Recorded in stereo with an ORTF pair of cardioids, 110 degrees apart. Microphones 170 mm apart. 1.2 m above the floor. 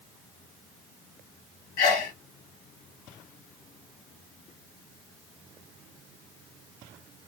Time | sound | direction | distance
1.8 | a sneeze | 70° left | 1.3 m